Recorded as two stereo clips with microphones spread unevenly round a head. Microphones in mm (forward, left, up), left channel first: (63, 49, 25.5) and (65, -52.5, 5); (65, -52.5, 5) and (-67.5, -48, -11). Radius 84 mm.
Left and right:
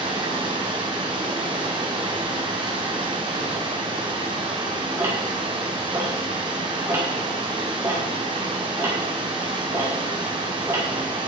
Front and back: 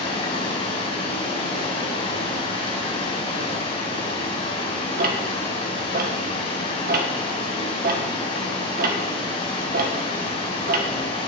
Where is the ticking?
170° right, 1.2 m.